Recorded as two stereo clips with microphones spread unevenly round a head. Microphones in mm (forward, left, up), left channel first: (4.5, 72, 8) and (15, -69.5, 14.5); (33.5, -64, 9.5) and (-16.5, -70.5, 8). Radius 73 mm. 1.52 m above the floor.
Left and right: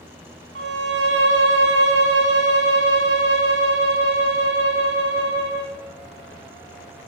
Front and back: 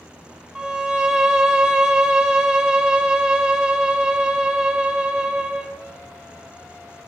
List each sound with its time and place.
0.6 s a violin: 95° right, 1.2 m